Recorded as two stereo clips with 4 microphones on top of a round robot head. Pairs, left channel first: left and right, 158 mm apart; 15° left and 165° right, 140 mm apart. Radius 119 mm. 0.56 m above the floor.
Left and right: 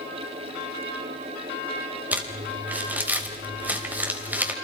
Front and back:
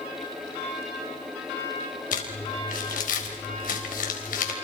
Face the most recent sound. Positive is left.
turn(degrees=-10)